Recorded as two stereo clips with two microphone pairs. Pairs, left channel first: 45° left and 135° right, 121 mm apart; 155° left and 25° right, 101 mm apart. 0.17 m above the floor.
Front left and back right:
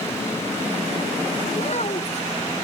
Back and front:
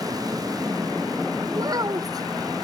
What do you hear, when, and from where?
1.5 s a child speaking: 25° left